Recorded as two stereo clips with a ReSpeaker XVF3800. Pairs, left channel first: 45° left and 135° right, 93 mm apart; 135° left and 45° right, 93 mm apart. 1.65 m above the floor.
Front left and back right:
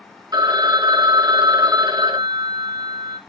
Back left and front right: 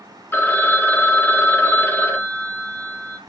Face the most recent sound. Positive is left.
turn(degrees=-165)